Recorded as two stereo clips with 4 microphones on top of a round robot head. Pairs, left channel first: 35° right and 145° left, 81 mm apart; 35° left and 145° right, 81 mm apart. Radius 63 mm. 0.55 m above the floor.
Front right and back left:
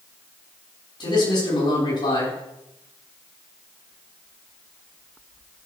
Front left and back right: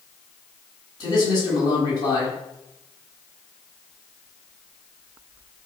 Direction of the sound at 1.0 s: 5° right.